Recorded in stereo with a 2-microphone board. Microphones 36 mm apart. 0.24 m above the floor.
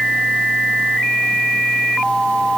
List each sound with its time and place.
Only background noise.